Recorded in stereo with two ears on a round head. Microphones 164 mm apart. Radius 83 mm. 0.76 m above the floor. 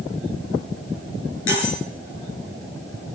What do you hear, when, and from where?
1.5 s cutlery clinking: 85° left, 6.5 m